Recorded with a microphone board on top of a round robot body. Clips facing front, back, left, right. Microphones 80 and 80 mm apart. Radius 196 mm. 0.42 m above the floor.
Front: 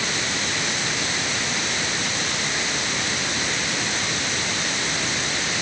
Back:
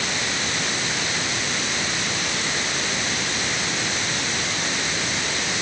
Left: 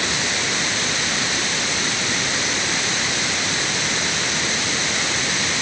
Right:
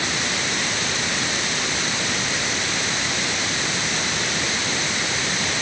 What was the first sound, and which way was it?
Only background noise.